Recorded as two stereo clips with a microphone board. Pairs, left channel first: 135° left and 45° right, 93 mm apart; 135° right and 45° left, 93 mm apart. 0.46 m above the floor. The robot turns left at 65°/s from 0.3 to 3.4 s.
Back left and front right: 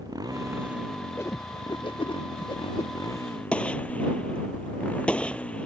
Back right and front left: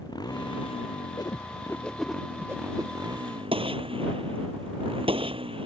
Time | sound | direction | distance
0.0 | a motorcycle | 90° right | ?
1.2 | a whoosh | 170° right | ?
3.5 | a gunshot | 55° left | ?